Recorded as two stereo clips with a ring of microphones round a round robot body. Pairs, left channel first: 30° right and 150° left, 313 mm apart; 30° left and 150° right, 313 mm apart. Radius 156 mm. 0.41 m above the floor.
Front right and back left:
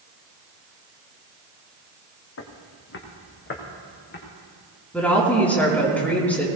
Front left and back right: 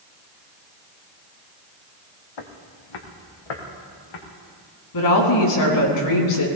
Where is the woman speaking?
55° left, 4 m.